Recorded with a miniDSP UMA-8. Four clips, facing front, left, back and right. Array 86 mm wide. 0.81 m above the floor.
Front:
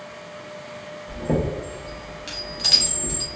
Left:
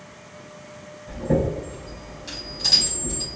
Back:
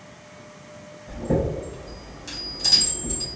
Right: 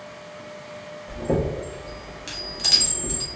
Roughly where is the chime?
Ahead right.